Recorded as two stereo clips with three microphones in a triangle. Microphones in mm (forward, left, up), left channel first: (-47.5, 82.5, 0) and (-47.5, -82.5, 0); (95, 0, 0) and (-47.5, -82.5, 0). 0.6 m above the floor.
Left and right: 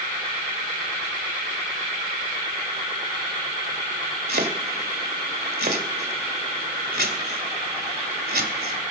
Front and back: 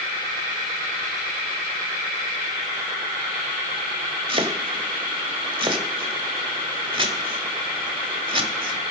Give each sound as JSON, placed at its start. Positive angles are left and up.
{"t": 4.3, "sound": "chopping", "azimuth_deg": -95, "distance_m": 1.7}